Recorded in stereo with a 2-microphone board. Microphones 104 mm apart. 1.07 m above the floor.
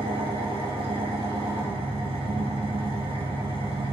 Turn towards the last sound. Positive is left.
turn(degrees=-65)  # may be behind; listen again after turning